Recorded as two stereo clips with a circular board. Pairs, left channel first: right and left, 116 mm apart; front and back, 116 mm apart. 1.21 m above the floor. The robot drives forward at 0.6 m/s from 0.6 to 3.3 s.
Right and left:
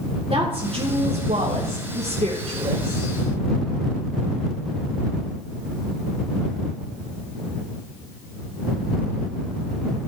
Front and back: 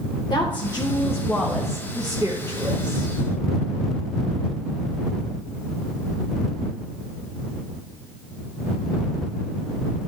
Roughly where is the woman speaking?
Ahead left.